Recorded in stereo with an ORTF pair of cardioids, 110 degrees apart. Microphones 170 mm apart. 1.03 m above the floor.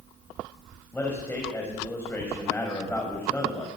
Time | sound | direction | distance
0.9 | a man speaking | 10° left | 6 m